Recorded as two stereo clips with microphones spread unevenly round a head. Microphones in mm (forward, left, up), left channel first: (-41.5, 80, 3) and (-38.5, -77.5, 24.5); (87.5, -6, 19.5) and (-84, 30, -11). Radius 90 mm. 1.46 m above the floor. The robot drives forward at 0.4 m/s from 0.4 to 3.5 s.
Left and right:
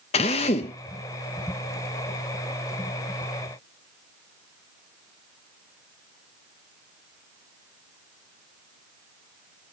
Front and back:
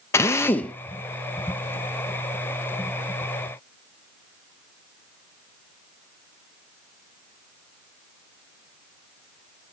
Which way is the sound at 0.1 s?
45° left.